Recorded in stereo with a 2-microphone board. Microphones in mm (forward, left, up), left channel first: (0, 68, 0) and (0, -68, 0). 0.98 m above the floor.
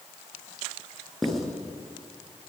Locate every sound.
1.2 s writing: 5° left (ahead or behind), 7.5 m